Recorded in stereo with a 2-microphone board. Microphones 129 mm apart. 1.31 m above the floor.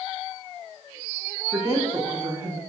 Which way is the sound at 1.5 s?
20° right (ahead or behind).